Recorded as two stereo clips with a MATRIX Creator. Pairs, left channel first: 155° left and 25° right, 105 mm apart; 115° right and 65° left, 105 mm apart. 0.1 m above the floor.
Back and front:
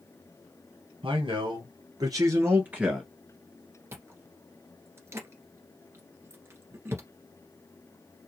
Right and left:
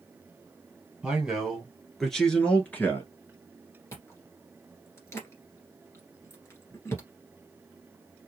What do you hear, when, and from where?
1.0 s a man speaking: 15° right, 2.5 m; by 3.1 s 115° right, 1.6 m
3.9 s chewing: 70° right, 1.7 m